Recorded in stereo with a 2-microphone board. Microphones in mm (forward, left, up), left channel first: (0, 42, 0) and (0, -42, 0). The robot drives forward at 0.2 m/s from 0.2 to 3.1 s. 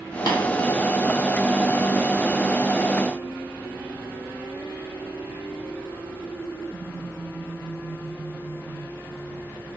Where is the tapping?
55° left (ahead or behind), 0.7 m.